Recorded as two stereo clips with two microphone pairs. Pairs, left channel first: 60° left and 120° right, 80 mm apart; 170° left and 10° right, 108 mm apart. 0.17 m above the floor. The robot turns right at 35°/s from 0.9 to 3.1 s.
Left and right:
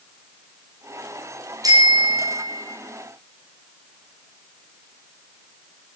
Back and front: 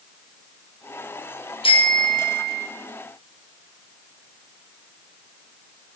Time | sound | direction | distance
1.6 | a bicycle bell | 160° right | 3.5 m